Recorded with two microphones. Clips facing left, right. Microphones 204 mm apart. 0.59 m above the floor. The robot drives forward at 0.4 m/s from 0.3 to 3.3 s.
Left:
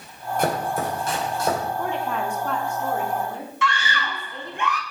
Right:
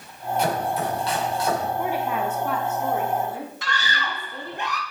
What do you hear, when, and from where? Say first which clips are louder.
0.4 s chopping: left 1 dB; 50° left (ahead or behind), 2 m; by 1.6 s 45° left (ahead or behind), 2.5 m
1.8 s a woman speaking: right 1 dB; 10° right (ahead or behind), 0.7 m; by 4.6 s 5° right (ahead or behind), 1.2 m
3.6 s a scream: left 3 dB; 35° right (ahead or behind), 1.3 m